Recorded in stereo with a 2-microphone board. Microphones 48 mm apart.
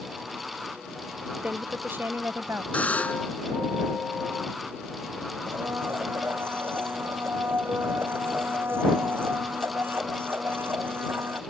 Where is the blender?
55° right (ahead or behind).